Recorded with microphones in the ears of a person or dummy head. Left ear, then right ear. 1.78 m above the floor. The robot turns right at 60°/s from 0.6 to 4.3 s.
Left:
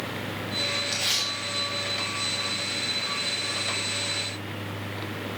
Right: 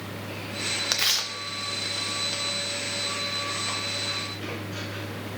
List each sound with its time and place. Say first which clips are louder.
0.9 s tearing paper: right 1 dB; 45° right (ahead or behind), 0.7 m; by 2.4 s 35° right (ahead or behind), 0.7 m